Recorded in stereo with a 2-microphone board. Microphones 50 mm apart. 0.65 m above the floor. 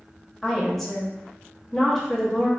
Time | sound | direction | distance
0.4 | a woman speaking | 5° left (ahead or behind) | 0.8 m